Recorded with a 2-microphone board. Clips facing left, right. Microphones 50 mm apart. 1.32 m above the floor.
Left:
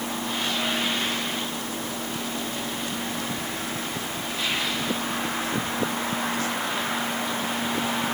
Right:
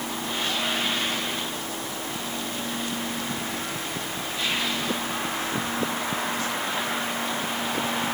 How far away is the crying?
I don't hear crying.